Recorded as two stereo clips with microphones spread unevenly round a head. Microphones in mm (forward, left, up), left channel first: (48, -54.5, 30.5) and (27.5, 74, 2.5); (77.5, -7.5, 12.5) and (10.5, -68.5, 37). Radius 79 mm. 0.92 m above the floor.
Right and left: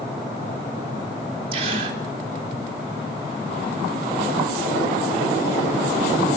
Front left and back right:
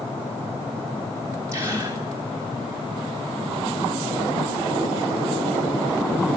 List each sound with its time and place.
1.5 s a gasp: 150° left, 3 m